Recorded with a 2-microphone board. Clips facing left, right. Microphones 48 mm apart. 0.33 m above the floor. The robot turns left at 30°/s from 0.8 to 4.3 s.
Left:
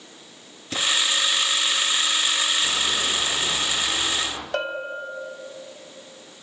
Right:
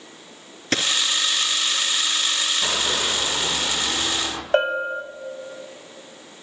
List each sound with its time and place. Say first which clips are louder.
0.7 s a dropped coin: right 2 dB; 65° right (ahead or behind), 1.9 m; by 0.9 s 70° right (ahead or behind), 1.9 m
2.6 s running footsteps: right 1 dB; 85° right, 6 m; by 4.4 s 50° right (ahead or behind), 4.5 m
4.5 s a bell: right 8 dB; 35° right (ahead or behind), 2 m